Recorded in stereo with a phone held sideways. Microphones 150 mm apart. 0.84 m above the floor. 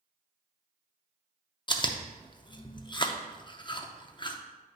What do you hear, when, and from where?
1.7 s chewing: 30° left (ahead or behind), 0.5 m